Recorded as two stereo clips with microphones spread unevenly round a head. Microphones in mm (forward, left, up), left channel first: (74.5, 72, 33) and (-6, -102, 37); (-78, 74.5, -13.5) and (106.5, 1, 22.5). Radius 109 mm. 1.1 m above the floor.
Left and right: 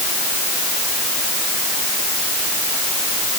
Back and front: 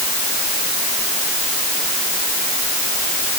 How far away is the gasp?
I don't hear a gasp.